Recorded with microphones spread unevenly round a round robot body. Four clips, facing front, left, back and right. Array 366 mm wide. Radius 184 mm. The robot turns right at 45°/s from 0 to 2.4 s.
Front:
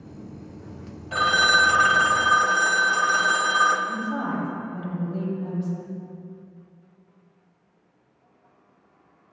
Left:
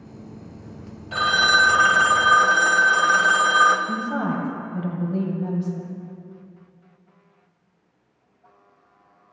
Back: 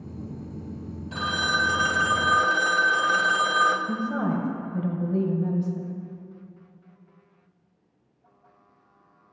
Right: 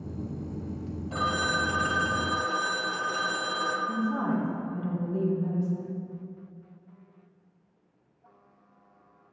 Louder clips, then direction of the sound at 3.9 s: Left 3 dB, back 1 dB; 165° left.